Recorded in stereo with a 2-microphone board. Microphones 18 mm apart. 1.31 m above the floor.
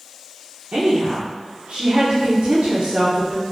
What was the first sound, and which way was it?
A woman speaking, 70° right (ahead or behind).